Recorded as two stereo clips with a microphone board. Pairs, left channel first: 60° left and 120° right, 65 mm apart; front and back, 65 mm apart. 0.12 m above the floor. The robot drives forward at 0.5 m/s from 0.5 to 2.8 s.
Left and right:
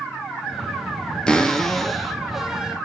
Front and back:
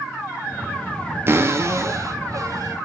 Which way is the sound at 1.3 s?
135° left.